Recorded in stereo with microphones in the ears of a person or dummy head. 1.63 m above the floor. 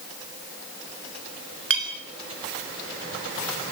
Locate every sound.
1.7 s a clink: 70° right (ahead or behind), 3 m